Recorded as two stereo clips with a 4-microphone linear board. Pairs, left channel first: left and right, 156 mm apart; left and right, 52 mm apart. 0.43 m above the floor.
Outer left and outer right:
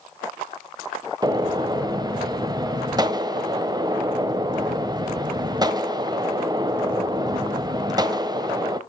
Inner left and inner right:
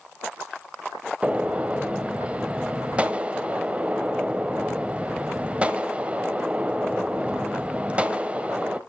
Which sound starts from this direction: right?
A gunshot, at 1.2 s.